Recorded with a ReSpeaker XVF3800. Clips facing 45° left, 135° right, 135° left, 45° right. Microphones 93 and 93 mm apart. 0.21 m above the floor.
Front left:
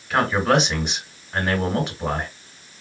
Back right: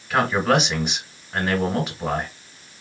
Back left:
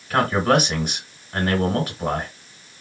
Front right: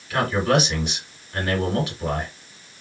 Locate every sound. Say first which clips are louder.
0.1 s a man speaking: even, back left 2 dB; 135° left, 1.6 m